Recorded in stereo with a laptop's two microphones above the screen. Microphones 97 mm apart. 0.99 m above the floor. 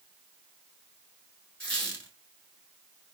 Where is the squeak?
10° left (ahead or behind), 1.2 m.